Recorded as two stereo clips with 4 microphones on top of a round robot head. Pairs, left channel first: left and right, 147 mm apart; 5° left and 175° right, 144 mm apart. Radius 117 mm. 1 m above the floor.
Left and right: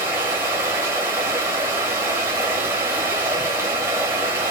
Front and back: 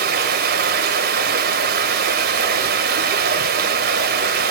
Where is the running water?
170° right, 1.4 m.